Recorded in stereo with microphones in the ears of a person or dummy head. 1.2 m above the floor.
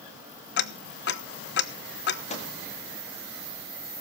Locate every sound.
0.6 s ticking: 55° left (ahead or behind), 0.7 m
2.3 s a microwave: 35° left (ahead or behind), 1.5 m